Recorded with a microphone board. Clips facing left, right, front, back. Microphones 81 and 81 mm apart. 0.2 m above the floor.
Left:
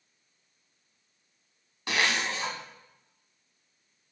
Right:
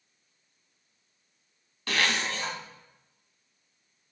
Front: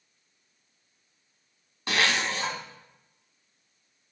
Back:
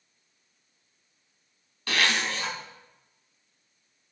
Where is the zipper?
35° left, 1.4 m.